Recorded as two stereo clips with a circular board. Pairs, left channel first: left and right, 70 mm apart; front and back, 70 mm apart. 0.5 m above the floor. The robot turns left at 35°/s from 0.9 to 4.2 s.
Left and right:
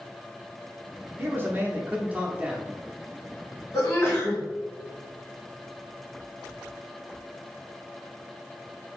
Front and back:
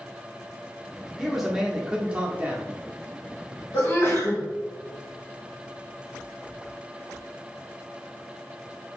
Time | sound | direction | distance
1.2 | a man speaking | 95° right | 0.7 m
3.7 | a sneeze | 50° left | 1.9 m